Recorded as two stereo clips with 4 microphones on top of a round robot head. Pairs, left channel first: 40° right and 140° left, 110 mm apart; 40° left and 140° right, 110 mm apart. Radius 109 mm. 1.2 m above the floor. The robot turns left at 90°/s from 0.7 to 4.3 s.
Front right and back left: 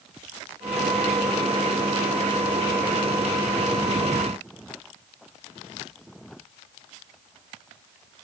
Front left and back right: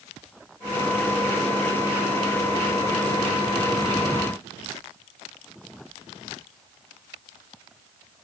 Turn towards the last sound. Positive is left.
No sound to turn to.